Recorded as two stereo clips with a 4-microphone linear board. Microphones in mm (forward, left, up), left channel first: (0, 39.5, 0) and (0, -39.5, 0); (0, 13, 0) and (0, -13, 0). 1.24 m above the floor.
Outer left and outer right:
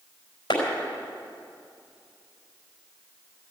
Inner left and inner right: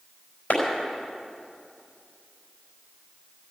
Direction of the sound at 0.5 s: 75° left (ahead or behind).